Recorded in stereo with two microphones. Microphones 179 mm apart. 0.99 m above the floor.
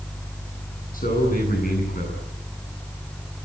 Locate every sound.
0.9 s a man speaking: 50° left (ahead or behind), 9.5 m